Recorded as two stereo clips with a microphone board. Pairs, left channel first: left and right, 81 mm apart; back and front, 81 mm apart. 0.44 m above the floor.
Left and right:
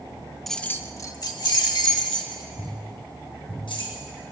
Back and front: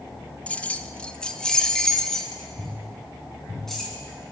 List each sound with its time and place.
0.5 s keys jangling: 170° left, 0.6 m; by 4.0 s 95° left, 3.5 m